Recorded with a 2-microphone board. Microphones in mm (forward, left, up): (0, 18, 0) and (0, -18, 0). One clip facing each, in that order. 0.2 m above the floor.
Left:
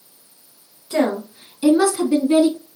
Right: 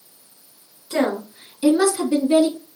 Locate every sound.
0.9 s a woman speaking: centre (ahead or behind), 1.9 m; by 2.6 s 30° left (ahead or behind), 1.8 m